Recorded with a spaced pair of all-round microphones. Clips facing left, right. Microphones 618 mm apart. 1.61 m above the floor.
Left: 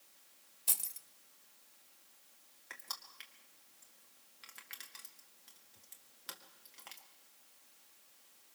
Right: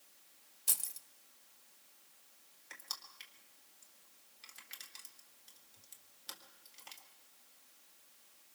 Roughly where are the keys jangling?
Centre.